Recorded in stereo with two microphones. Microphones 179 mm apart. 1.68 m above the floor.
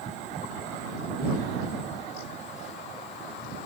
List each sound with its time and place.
Only background noise.